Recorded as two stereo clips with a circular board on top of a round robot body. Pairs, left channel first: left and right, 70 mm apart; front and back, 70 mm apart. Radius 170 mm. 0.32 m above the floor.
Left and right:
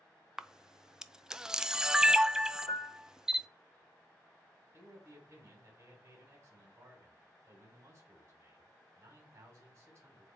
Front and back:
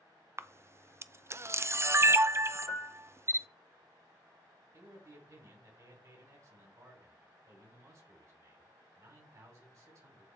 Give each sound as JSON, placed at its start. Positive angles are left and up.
{"t": 0.4, "sound": "a camera shutter", "azimuth_deg": -165, "distance_m": 0.5}
{"t": 2.7, "sound": "a piano", "azimuth_deg": 75, "distance_m": 1.3}
{"t": 4.7, "sound": "a man speaking", "azimuth_deg": -145, "distance_m": 3.0}